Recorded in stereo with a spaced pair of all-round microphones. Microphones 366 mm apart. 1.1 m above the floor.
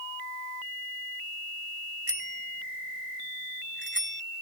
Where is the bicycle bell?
20° left (ahead or behind); by 4.2 s 30° left (ahead or behind).